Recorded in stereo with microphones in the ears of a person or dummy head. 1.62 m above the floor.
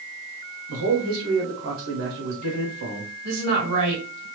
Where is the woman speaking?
75° right (ahead or behind), 1.7 m.